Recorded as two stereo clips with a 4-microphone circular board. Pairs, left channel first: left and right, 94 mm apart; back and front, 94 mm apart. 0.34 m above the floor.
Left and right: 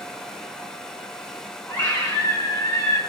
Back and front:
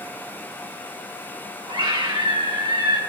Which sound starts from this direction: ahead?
A scream, at 1.7 s.